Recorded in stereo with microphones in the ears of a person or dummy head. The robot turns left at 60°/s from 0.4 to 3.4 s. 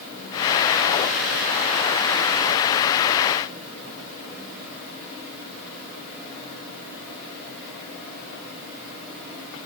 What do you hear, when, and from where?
Only background noise.